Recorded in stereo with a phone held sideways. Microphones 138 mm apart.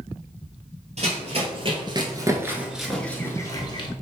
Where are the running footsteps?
55° right (ahead or behind), 1.7 m; by 3.9 s 35° left (ahead or behind), 1.2 m.